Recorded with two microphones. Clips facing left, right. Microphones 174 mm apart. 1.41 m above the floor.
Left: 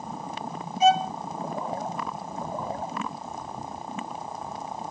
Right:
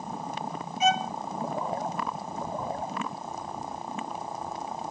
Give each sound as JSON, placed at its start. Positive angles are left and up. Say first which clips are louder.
{"t": 0.8, "sound": "a violin", "louder": "left 5 dB", "side_deg": 35}